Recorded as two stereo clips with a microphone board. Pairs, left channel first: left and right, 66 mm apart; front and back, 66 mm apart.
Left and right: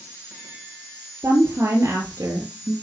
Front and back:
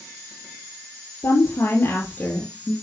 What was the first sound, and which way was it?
A woman speaking, 40° right.